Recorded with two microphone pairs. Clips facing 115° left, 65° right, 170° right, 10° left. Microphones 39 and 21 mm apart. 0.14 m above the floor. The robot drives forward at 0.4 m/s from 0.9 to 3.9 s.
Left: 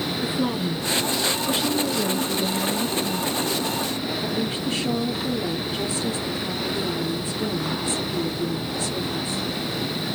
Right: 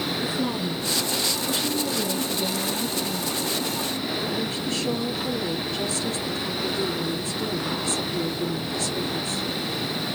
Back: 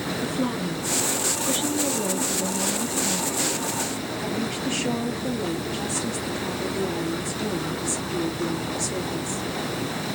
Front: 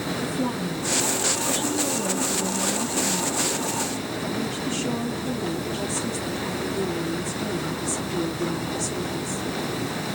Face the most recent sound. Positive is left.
turn(degrees=175)